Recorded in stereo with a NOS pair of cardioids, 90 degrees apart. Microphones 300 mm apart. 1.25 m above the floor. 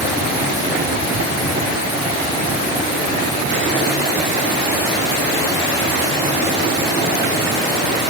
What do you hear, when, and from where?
Only background noise.